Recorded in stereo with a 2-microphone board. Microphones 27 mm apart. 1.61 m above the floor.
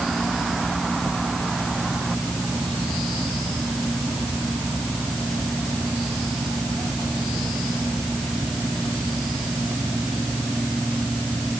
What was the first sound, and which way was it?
Only background noise.